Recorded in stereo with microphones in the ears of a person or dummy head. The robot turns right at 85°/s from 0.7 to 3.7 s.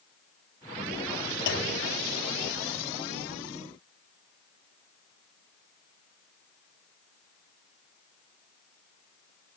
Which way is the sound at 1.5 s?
65° left.